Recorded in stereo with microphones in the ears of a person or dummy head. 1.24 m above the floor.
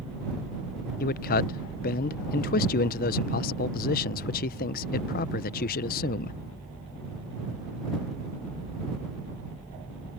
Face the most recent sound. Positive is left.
turn(degrees=40)  # may be behind; listen again after turning